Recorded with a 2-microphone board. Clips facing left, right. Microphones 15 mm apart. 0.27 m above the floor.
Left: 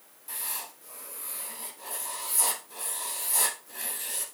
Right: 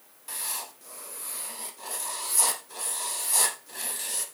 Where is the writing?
35° right (ahead or behind), 2 m.